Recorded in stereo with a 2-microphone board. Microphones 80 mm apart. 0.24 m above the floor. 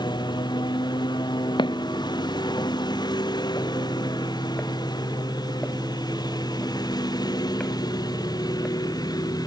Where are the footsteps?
70° left (ahead or behind); by 8.8 s 5° left (ahead or behind).